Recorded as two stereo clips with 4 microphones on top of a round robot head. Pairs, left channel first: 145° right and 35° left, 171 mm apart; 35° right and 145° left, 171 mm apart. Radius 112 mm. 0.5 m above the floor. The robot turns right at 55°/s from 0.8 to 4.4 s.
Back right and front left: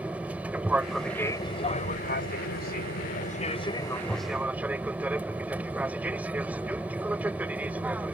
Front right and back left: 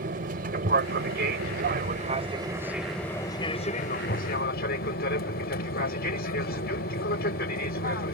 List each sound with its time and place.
0.0 s an aircraft: 120° left; by 8.2 s 45° right